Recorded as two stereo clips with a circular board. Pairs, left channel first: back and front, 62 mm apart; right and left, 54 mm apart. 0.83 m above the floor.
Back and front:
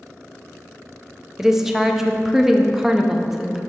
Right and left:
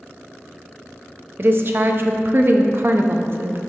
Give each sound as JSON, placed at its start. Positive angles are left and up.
{"t": 1.4, "sound": "a woman speaking", "azimuth_deg": 80, "distance_m": 0.6}